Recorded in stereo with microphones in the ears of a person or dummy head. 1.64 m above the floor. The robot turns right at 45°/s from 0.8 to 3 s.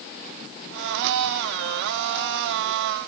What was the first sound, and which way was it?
Only background noise.